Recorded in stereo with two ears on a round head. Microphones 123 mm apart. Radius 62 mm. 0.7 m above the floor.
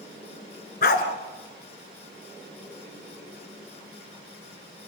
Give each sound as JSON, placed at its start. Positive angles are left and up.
{"t": 0.8, "sound": "a dog barking", "side_deg": 80, "distance_m": 2.5}